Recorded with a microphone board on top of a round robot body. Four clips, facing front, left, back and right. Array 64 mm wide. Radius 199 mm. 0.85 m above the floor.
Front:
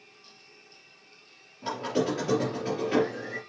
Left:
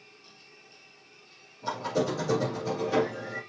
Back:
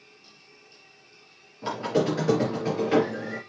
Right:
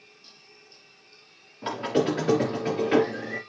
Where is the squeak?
105° right, 3.5 m.